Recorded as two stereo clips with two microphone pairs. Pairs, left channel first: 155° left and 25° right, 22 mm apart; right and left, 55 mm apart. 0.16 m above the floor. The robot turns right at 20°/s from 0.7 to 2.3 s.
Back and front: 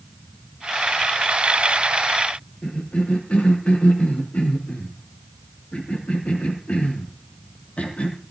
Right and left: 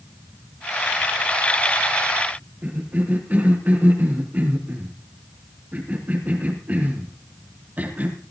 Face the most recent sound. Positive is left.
turn(degrees=145)